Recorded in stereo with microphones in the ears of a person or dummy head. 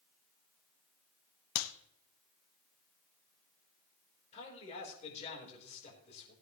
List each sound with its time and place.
1.6 s a clap: 75° left (ahead or behind), 0.7 m
4.3 s a man speaking: 30° left (ahead or behind), 4.5 m